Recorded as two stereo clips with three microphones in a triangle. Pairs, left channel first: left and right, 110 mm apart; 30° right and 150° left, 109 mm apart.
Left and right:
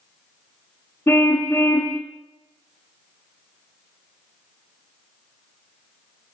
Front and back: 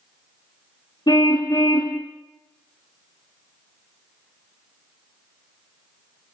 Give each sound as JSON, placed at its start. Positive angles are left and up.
{"t": 1.1, "sound": "a car horn", "azimuth_deg": 20, "distance_m": 5.0}